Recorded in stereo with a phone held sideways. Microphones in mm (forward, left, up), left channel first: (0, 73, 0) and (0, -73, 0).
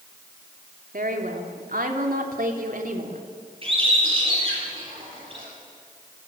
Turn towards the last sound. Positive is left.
turn(degrees=-40)  # may be behind; listen again after turning